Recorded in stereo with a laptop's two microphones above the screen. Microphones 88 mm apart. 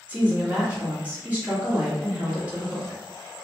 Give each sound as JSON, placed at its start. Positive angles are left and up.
{"t": 0.1, "sound": "a woman speaking", "side_deg": -15, "distance_m": 1.6}